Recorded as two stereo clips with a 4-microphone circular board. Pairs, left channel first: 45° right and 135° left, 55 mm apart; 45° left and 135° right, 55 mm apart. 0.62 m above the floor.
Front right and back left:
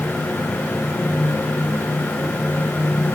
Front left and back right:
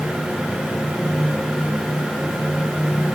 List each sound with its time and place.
Only background noise.